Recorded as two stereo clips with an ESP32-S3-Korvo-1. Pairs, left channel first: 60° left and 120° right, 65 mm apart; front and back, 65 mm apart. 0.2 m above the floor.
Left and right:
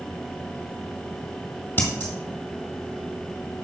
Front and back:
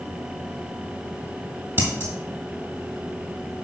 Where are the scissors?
125° left, 2.0 m.